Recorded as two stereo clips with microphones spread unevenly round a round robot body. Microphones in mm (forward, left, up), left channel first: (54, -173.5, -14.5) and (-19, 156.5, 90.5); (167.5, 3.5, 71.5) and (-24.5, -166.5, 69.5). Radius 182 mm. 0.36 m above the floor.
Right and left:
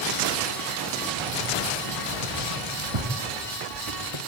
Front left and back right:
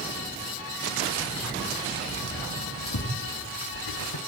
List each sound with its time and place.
1.2 s keys jangling: 120° left, 1.7 m; by 4.2 s 70° left, 2 m